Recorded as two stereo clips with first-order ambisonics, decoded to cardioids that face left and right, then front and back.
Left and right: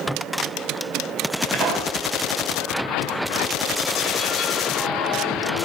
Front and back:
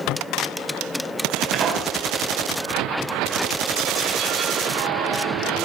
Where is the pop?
140° right, 3 m.